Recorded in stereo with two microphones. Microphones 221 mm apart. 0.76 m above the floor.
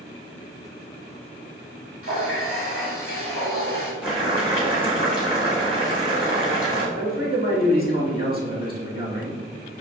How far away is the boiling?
About 1.3 m.